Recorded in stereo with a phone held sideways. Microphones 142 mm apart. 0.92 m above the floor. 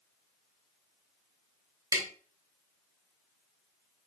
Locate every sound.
1.9 s tapping: 25° right (ahead or behind), 0.9 m